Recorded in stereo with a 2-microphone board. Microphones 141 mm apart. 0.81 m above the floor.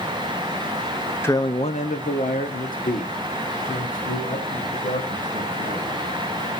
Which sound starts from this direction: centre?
A man speaking, at 1.2 s.